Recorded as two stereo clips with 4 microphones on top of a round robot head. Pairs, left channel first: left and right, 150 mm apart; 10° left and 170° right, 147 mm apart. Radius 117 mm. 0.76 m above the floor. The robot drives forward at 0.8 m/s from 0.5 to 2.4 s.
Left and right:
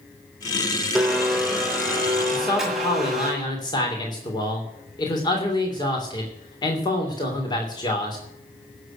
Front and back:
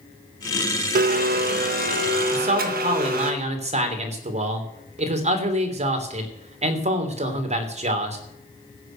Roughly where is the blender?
Behind.